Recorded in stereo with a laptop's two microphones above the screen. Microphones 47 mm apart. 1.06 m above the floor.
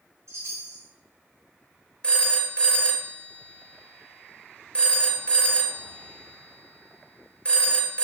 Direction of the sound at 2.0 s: 25° left (ahead or behind).